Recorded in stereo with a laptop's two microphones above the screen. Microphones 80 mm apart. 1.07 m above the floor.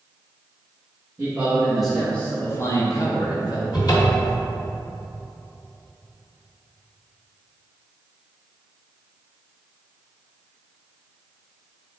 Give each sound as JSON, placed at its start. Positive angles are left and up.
{"t": 1.2, "sound": "a man speaking", "side_deg": -20, "distance_m": 1.2}
{"t": 3.7, "sound": "a cupboard door", "side_deg": 55, "distance_m": 1.3}